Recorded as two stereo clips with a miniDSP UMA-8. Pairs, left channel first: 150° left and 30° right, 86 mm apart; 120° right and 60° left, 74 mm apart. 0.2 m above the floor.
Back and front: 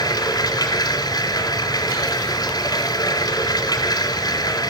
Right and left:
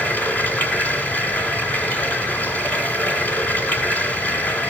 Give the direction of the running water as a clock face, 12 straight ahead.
6 o'clock.